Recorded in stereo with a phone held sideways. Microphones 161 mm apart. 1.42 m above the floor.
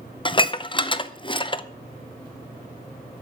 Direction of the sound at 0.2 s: 30° left (ahead or behind).